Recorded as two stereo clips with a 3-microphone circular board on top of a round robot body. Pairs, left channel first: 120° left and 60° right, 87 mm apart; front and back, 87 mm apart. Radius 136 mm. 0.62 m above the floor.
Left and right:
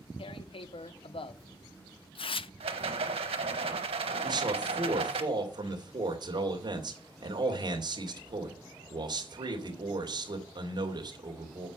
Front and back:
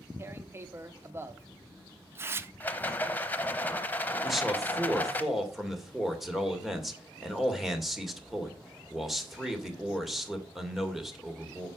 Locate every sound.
0.2 s tearing paper: 120° left, 0.6 m
2.6 s a rattle: 70° right, 0.7 m
4.2 s a man speaking: 90° right, 2.5 m